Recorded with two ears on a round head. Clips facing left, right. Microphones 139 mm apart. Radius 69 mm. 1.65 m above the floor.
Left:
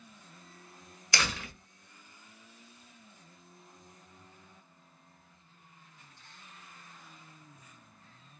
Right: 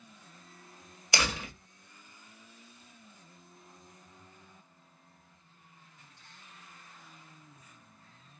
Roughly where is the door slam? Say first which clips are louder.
Right 2 dB; centre.